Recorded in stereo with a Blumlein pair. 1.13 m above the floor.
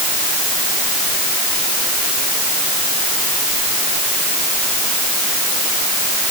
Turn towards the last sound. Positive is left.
No sound to turn to.